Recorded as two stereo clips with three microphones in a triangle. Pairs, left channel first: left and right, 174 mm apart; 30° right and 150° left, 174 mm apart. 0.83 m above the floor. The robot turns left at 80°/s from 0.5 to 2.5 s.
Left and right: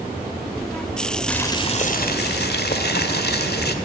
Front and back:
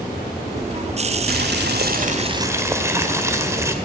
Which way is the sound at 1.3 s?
175° left.